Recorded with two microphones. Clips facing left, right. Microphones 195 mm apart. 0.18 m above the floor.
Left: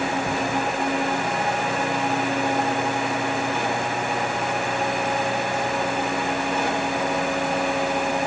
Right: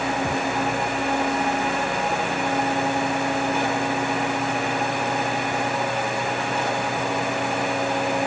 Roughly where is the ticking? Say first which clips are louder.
Right 1 dB; right.